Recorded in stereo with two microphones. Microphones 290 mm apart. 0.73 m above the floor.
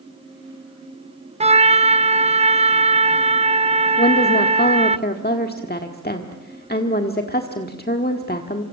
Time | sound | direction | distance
1.4 | a trumpet | 20° right (ahead or behind) | 0.5 m
4.0 | a woman speaking | 35° left (ahead or behind) | 1.5 m